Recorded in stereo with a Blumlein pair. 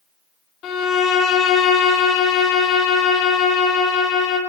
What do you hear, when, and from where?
0.6 s a violin: 30° left, 0.6 m